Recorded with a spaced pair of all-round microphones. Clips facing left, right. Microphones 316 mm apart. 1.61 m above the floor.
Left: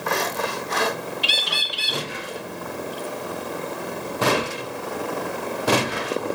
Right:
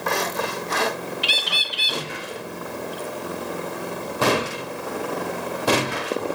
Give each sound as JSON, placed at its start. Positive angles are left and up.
{"t": 1.2, "sound": "a bird", "side_deg": -70, "distance_m": 1.9}